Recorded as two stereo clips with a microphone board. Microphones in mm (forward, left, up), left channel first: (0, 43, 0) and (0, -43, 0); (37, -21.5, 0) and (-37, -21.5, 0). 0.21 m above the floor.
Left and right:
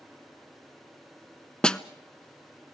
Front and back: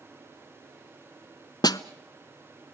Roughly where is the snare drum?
Ahead.